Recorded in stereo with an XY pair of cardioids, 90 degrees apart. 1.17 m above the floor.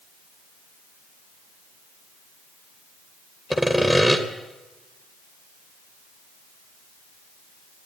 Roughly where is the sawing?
Ahead.